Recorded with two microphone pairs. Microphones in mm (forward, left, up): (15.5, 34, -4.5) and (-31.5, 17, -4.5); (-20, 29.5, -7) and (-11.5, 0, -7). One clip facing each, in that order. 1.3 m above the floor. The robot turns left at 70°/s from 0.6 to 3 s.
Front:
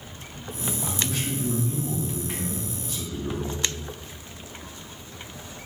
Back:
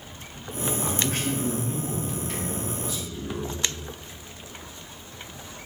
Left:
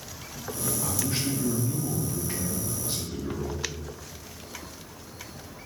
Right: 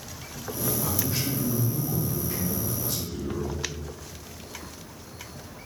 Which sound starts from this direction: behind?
A man speaking, at 0.8 s.